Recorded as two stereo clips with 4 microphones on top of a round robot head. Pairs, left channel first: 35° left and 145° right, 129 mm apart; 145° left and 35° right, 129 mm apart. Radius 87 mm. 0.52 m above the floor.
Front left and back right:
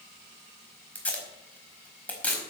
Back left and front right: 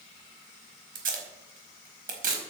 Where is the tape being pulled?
45° right, 4.5 m.